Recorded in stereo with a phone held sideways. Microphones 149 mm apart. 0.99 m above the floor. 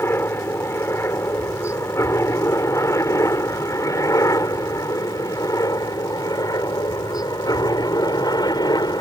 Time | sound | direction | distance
0.0 | a helicopter | 15° left (ahead or behind) | ?